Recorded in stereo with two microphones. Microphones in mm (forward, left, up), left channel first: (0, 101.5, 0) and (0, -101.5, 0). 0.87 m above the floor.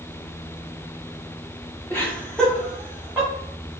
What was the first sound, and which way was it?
Laughter, 10° left (ahead or behind).